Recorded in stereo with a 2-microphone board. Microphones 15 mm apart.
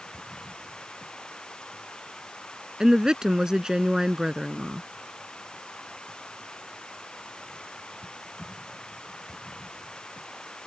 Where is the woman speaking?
55° right (ahead or behind).